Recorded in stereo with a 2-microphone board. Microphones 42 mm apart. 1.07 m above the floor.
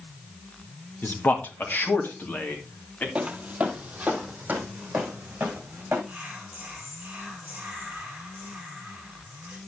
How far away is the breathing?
No breathing in this recording.